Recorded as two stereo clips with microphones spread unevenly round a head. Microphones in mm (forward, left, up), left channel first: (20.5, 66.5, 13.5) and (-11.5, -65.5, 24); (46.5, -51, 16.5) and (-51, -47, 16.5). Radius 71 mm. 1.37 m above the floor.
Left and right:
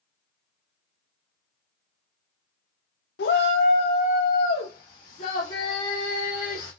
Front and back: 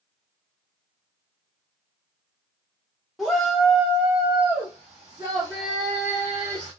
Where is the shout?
85° left, 0.7 m; by 6.7 s 115° left, 3 m.